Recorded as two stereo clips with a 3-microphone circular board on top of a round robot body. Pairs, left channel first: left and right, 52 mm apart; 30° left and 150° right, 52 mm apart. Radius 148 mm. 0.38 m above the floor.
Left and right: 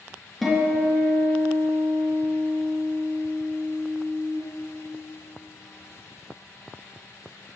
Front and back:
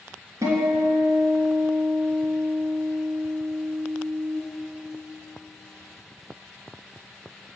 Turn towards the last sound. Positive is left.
turn(degrees=180)